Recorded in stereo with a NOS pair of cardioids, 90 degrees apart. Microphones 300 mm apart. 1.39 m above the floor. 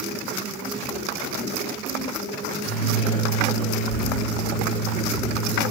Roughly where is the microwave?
Ahead left.